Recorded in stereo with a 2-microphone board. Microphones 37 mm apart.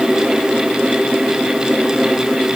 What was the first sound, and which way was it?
Only background noise.